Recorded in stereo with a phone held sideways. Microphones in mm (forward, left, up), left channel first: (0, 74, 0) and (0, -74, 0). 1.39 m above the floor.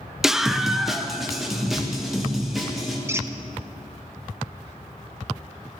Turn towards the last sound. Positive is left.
turn(degrees=-20)  # may be behind; listen again after turning